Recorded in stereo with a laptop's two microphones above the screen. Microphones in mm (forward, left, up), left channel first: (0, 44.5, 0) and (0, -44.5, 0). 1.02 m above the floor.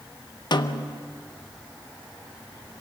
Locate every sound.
0.5 s a snare drum: 55° left (ahead or behind), 0.8 m